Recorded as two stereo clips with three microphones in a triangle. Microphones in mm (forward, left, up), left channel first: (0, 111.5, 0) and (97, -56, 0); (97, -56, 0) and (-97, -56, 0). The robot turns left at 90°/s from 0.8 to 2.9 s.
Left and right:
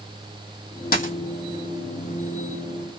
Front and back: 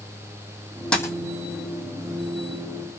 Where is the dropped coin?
85° left, 1.1 m; by 1.1 s 65° left, 1.1 m.